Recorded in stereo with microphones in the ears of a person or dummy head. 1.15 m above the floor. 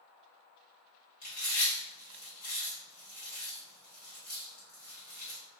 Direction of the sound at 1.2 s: 60° left (ahead or behind).